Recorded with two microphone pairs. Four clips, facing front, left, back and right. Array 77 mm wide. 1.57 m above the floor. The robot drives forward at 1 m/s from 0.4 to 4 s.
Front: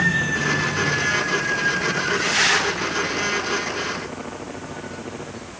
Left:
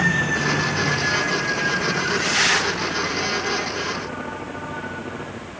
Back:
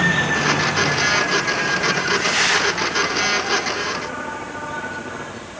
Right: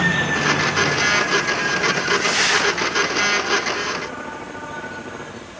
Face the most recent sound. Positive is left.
turn(degrees=180)